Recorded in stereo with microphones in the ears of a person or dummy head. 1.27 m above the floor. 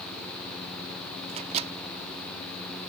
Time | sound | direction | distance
1.3 | a microwave | 40° right (ahead or behind) | ?